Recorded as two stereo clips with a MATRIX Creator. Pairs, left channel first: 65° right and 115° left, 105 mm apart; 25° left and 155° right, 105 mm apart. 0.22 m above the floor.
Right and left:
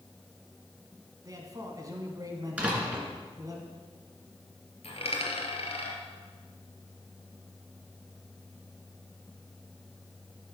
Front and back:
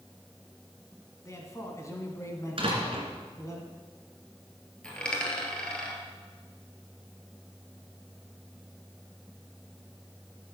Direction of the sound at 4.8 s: 60° right.